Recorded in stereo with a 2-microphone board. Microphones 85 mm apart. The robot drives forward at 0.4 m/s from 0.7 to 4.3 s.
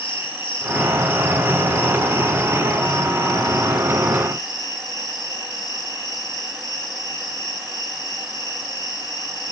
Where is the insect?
75° left (ahead or behind), 1.3 m; by 9.5 s 50° left (ahead or behind), 1.7 m.